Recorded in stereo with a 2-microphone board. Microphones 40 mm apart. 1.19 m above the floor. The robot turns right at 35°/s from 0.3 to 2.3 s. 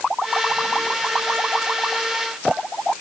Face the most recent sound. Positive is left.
No sound to turn to.